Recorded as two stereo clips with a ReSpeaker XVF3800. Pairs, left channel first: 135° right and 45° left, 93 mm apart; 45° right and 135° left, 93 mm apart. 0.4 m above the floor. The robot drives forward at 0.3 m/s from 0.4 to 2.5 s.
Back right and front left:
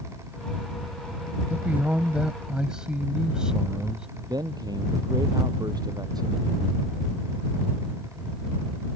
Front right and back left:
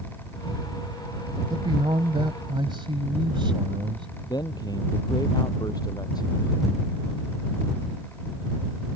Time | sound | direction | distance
1.5 | a man speaking | 115° left | ?
4.3 | a man speaking | straight ahead | ?